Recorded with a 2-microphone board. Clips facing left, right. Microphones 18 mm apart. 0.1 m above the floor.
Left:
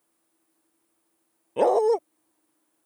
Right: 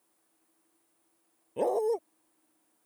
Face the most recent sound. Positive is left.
turn(degrees=35)  # may be behind; listen again after turning